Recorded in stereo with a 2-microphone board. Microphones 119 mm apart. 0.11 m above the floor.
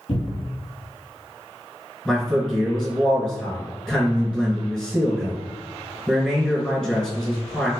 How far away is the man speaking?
About 1.4 m.